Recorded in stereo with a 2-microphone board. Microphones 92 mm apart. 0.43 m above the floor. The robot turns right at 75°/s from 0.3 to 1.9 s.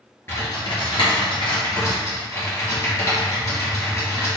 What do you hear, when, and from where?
0.3 s typing on a keyboard: 25° left (ahead or behind), 1.8 m; by 4.3 s 35° left (ahead or behind), 1.8 m